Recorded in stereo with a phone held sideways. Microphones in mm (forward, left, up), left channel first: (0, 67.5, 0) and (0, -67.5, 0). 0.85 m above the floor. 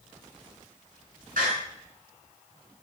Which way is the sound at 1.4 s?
75° right (ahead or behind).